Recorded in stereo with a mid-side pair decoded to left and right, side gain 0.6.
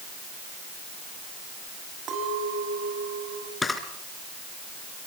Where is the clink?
50° right, 6.5 m.